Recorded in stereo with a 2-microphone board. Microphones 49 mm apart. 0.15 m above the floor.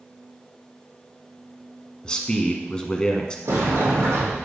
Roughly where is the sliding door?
Right.